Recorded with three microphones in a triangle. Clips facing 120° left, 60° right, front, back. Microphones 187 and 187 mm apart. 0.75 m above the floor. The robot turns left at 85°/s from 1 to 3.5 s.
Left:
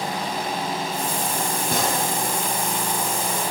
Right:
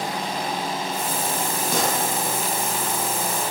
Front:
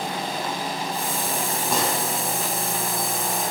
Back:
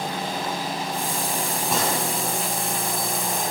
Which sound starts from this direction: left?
A gunshot, at 1.7 s.